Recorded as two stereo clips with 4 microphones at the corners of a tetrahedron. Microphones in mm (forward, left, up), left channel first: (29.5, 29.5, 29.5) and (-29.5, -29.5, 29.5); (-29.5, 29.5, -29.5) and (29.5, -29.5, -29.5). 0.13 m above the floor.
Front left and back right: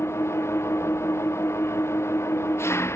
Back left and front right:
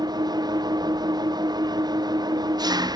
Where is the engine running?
15° right.